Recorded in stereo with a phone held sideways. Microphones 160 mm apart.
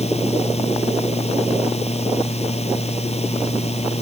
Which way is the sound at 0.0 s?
45° left (ahead or behind).